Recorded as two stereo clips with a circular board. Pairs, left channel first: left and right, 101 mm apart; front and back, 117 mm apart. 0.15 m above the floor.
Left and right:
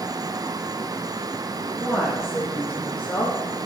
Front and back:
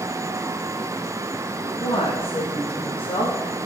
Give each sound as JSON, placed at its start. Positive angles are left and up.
{"t": 1.8, "sound": "a woman speaking", "azimuth_deg": -10, "distance_m": 1.7}